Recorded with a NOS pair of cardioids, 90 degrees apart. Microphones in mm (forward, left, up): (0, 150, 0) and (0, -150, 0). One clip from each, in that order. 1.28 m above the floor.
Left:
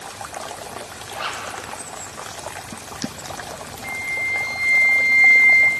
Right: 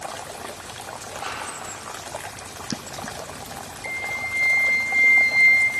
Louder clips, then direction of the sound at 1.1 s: Left 4 dB; 50° left.